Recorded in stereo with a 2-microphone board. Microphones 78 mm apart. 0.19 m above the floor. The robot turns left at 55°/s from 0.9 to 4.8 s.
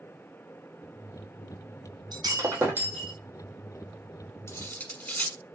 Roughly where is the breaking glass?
Behind right.